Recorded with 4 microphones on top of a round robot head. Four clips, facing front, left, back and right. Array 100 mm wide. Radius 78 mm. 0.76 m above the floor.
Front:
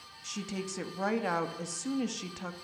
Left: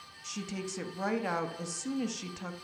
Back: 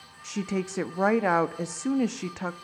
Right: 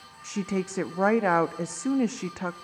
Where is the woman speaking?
130° right, 1.2 m.